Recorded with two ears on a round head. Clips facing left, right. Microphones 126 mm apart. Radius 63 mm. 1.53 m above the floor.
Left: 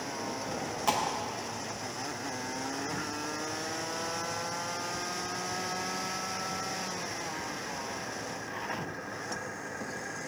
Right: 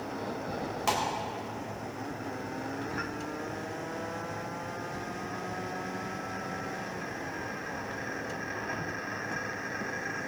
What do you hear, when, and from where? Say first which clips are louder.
0.9 s a pop: even; 5° right (ahead or behind), 3.5 m